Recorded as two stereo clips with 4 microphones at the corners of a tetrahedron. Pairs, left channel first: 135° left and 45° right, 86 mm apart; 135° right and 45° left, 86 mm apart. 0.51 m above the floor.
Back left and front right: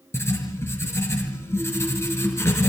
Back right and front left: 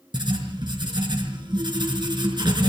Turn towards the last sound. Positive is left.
turn(degrees=75)